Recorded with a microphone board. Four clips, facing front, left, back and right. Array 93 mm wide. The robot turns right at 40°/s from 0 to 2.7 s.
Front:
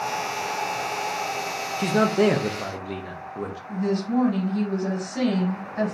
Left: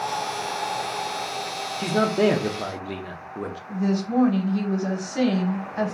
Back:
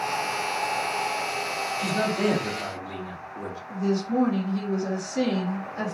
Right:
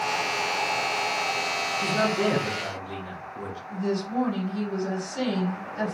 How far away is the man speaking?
About 0.9 m.